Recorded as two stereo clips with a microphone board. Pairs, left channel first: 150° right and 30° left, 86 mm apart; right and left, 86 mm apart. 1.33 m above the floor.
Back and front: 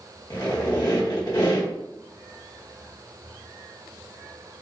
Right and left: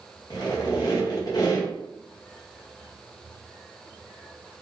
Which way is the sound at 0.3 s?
120° right.